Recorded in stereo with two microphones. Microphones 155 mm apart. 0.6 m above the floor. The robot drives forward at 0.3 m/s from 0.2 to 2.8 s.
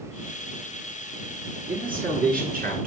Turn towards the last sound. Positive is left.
turn(degrees=-65)  # may be behind; listen again after turning